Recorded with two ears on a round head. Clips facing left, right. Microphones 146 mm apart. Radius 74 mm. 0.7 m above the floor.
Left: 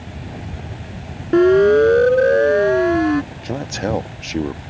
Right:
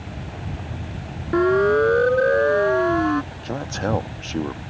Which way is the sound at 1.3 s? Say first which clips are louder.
Left 6 dB; 30° left (ahead or behind).